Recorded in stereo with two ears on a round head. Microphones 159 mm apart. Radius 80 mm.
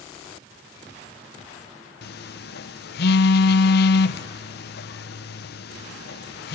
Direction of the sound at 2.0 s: 65° left (ahead or behind).